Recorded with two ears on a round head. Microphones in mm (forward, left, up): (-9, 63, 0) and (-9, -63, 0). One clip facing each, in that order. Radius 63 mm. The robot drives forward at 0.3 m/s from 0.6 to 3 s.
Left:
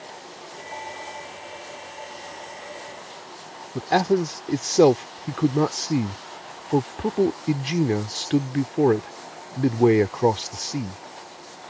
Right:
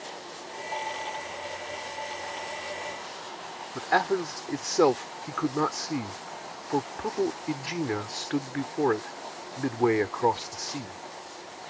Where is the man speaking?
30° left (ahead or behind).